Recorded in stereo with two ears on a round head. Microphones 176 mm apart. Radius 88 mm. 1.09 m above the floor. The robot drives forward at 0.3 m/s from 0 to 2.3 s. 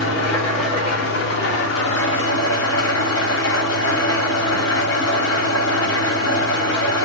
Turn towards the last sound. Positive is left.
turn(degrees=70)  # may be behind; listen again after turning